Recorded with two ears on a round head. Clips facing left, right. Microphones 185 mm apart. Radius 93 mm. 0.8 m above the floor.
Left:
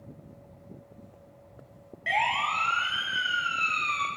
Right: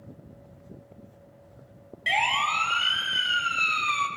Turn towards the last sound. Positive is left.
turn(degrees=-55)  # may be behind; listen again after turning